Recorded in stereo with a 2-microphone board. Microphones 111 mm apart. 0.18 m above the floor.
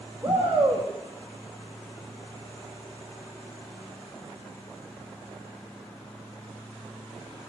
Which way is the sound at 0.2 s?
20° right (ahead or behind).